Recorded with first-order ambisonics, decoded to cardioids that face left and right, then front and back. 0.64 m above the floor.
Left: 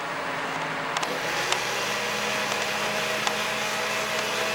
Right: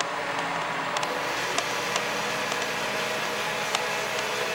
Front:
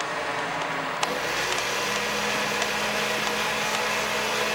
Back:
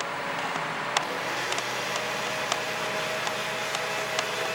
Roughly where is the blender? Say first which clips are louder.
Left 1 dB, front 4 dB; ahead left.